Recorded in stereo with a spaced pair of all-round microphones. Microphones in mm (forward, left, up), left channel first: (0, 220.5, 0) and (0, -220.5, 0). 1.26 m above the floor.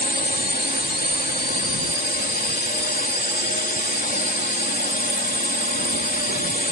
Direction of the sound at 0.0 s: 20° left (ahead or behind).